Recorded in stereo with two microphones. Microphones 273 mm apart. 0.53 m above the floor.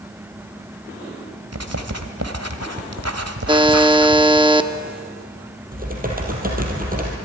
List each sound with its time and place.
1.5 s writing: 65° right (ahead or behind), 1.4 m
3.5 s a buzzer: 20° right (ahead or behind), 0.6 m
5.7 s typing on a keyboard: 30° right (ahead or behind), 3.5 m